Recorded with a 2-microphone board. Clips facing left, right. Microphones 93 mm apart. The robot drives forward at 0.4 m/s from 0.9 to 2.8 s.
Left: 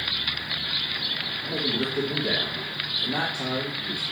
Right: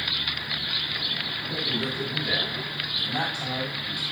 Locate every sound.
1.4 s a man speaking: 60° left (ahead or behind), 3.5 m